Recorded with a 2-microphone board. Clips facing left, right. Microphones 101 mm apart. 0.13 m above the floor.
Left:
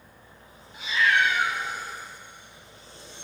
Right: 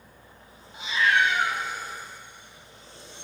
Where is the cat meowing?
20° right (ahead or behind), 2.5 m.